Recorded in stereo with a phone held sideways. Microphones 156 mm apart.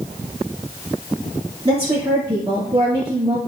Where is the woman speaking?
35° right (ahead or behind), 2 m.